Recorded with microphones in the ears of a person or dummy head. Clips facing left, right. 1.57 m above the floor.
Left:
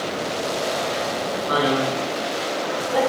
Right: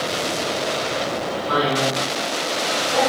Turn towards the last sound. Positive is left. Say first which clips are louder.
# even
turn(degrees=45)  # may be behind; listen again after turning